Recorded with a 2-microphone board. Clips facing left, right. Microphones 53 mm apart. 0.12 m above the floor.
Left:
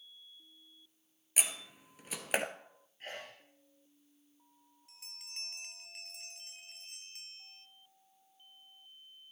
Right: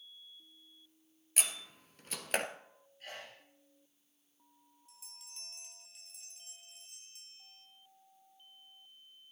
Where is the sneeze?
35° left (ahead or behind), 3 m.